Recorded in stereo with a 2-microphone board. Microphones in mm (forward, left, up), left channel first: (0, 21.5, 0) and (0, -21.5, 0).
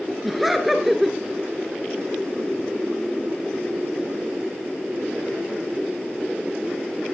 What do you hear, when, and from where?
0.2 s laughter: centre (ahead or behind), 1.4 m